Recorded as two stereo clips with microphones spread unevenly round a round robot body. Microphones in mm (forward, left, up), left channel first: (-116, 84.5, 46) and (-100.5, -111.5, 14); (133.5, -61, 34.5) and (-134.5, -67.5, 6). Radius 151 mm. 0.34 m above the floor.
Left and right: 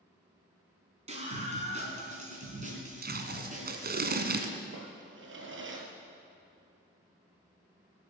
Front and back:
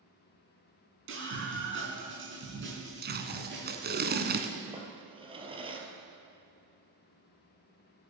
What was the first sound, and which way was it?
A scream, 140° right.